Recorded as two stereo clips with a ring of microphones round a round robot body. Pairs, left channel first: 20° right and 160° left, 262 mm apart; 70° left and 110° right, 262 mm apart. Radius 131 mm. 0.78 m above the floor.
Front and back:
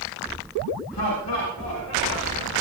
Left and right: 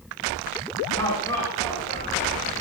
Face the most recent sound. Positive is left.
turn(degrees=-20)